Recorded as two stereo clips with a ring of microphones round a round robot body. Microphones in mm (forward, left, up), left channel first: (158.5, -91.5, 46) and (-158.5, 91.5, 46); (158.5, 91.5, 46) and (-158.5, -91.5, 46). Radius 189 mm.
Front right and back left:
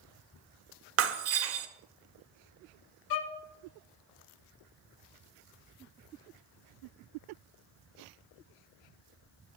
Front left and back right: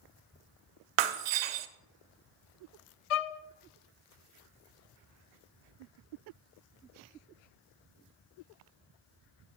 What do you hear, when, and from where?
1.0 s breaking glass: 155° right, 0.6 m
3.1 s a violin: 15° left, 0.6 m